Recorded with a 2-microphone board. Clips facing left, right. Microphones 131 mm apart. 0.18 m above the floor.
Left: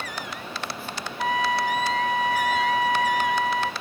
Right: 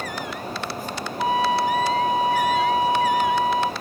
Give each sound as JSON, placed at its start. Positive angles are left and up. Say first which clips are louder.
{"t": 1.2, "sound": "a trumpet", "louder": "right 4 dB", "side_deg": -25, "distance_m": 0.8}